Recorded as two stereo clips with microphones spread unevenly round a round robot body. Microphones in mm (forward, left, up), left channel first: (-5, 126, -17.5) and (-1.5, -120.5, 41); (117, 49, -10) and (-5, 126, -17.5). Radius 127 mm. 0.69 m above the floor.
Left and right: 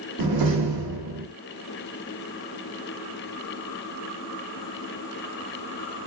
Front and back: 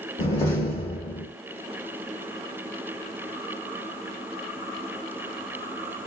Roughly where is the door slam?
Right.